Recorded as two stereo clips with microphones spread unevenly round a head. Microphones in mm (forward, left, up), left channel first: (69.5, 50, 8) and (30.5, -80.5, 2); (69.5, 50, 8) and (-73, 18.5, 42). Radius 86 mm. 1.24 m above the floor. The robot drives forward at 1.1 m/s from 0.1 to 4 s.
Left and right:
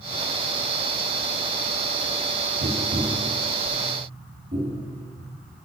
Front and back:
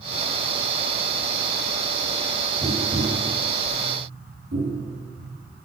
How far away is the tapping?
About 1.1 m.